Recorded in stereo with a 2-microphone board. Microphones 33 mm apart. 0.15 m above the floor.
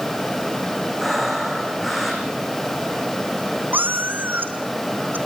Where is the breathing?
5° right (ahead or behind), 5 m.